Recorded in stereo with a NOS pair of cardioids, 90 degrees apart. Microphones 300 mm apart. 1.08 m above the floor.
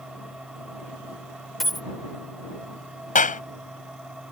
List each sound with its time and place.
0.0 s a machine running: straight ahead
1.6 s a dropped coin: straight ahead
3.1 s a clap: 25° left